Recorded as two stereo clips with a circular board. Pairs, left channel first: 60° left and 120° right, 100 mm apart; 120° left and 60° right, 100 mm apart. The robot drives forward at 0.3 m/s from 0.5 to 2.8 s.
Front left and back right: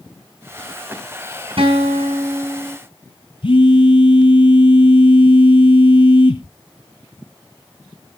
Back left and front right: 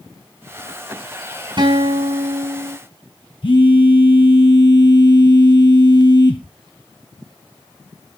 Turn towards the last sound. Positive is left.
turn(degrees=90)